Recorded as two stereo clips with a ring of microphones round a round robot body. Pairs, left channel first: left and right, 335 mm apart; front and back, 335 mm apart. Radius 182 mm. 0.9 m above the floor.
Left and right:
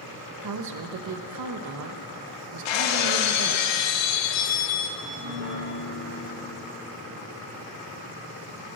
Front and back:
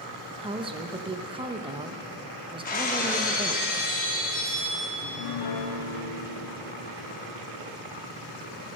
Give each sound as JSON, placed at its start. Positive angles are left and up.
{"t": 0.4, "sound": "a woman speaking", "azimuth_deg": -105, "distance_m": 0.9}
{"t": 2.6, "sound": "breaking glass", "azimuth_deg": 70, "distance_m": 0.9}
{"t": 5.0, "sound": "a piano", "azimuth_deg": -20, "distance_m": 1.1}